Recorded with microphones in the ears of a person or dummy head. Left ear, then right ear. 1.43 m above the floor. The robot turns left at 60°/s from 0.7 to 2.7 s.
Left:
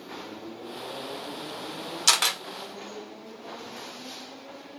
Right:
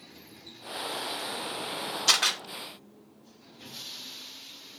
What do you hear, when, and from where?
2.1 s a camera shutter: 35° left (ahead or behind), 0.9 m; by 2.4 s 20° left (ahead or behind), 0.9 m